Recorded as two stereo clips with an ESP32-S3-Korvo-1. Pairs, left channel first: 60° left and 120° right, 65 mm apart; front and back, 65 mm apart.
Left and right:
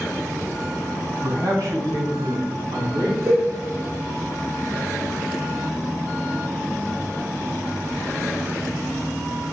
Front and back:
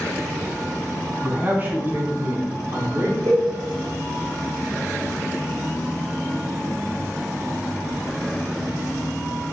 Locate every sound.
1.2 s a man speaking: 120° right, 3.5 m; by 3.2 s 145° right, 4 m
3.3 s a cowbell: straight behind, 2.5 m